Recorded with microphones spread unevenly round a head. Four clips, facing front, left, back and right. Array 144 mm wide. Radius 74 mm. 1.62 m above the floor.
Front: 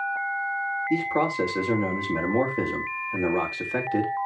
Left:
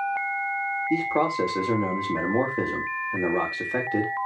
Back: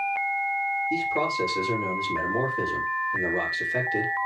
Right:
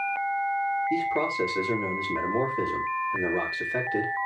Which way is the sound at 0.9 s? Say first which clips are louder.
Left 3 dB, front 5 dB; 55° left.